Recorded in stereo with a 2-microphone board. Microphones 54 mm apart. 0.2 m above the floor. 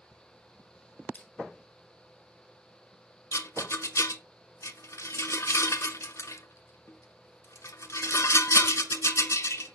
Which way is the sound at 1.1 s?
30° left (ahead or behind).